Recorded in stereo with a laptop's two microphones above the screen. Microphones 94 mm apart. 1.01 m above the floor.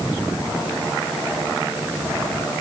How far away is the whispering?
I don't hear whispering.